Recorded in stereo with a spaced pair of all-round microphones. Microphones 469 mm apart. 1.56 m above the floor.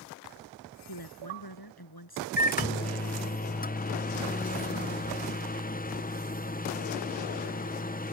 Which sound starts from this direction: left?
A woman speaking, at 0.9 s.